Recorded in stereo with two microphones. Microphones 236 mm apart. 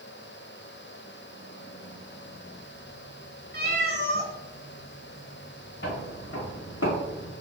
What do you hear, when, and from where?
3.5 s a cat meowing: 45° right (ahead or behind), 0.9 m
5.8 s footsteps: 55° left (ahead or behind), 1.2 m; by 7.3 s 35° left (ahead or behind), 0.7 m